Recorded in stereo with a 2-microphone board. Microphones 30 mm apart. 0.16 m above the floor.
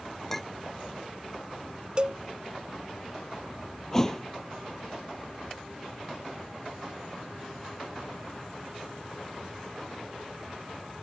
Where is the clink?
10° left (ahead or behind).